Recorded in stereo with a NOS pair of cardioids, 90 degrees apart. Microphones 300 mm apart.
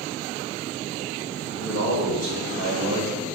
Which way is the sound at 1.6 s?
65° right.